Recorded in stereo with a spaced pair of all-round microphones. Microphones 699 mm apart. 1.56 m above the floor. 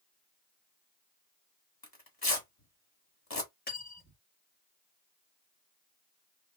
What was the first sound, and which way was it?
Tearing paper, 30° left (ahead or behind).